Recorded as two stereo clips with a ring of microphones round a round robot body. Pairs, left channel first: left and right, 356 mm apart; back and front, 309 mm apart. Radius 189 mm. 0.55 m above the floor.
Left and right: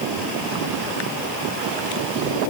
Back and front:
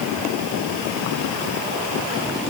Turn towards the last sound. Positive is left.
No sound to turn to.